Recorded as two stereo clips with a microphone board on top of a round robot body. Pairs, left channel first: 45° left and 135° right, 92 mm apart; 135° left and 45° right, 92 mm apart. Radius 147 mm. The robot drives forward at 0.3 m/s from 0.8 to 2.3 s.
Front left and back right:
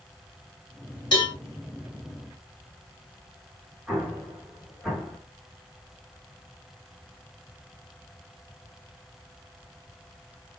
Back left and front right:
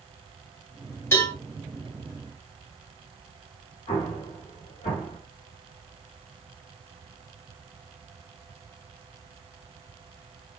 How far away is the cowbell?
About 2 m.